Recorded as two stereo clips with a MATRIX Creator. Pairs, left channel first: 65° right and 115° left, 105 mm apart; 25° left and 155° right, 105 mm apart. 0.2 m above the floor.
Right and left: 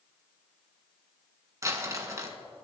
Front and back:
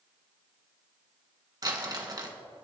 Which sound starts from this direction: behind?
Crumpling, at 1.6 s.